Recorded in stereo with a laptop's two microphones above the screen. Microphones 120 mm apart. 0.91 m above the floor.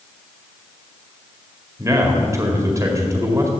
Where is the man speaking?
25° right (ahead or behind), 2 m.